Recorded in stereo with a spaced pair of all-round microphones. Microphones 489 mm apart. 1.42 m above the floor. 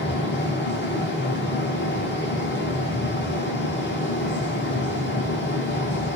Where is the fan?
25° left (ahead or behind), 1.1 m.